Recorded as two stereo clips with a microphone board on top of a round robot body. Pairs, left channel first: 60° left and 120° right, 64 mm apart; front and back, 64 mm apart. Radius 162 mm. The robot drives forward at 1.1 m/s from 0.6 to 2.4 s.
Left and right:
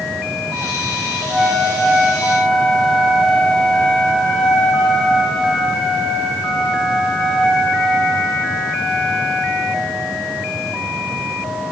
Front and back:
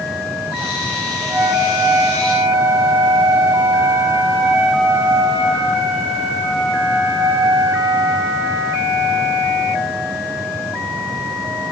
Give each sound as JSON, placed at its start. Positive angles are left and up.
{"t": 1.3, "sound": "a flute", "azimuth_deg": 140, "distance_m": 7.5}